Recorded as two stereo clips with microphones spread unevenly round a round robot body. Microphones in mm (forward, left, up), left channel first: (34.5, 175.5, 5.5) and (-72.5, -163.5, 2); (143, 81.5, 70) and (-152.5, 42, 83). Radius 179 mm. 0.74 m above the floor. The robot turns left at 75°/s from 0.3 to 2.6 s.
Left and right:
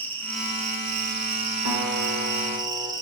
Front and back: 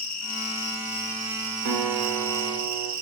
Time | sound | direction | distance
0.0 | an insect | 10° right | 1.8 m
1.6 | a guitar | 125° right | 4.5 m